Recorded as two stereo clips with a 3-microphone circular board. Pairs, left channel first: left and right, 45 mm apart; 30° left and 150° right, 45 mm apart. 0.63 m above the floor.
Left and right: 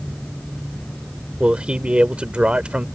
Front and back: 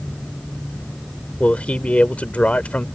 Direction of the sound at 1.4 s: 25° right.